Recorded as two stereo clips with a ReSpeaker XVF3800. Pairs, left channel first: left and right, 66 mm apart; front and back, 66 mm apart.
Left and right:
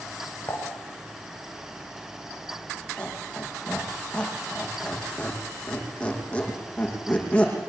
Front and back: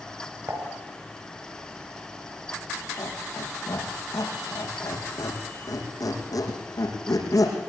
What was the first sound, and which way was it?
Dishes clattering, 145° left.